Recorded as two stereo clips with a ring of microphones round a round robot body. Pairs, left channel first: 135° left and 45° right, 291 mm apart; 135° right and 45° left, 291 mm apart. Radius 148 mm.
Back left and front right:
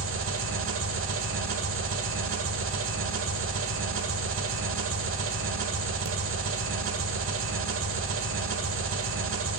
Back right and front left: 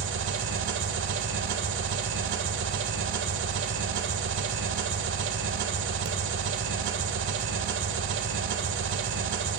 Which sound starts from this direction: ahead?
An engine running, at 0.0 s.